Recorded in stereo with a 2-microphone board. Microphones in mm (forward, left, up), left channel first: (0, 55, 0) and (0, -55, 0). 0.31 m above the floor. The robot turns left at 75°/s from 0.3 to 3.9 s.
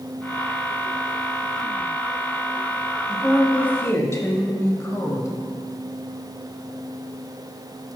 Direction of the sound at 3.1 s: 165° right.